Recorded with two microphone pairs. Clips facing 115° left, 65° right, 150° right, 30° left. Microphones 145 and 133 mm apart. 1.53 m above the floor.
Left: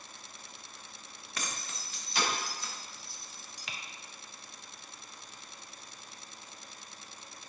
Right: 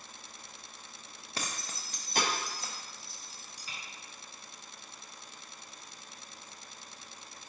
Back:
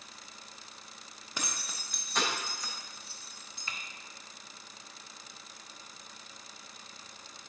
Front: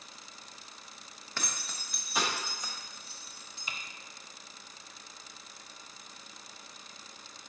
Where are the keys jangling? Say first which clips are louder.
Right 1 dB, even; 85° right, 0.8 m; by 3.7 s 30° right, 1.7 m.